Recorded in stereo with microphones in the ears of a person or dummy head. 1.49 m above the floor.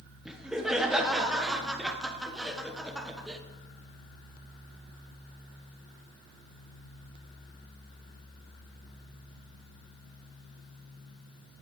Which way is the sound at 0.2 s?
5° right (ahead or behind).